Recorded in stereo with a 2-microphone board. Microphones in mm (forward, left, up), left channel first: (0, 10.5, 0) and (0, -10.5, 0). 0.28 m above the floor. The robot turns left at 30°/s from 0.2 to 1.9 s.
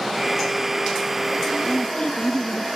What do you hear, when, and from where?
1.6 s a woman speaking: 40° left (ahead or behind); by 2.7 s 45° left (ahead or behind)